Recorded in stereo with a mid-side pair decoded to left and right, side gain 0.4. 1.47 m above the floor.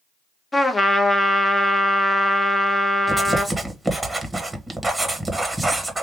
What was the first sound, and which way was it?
A trumpet, 20° left.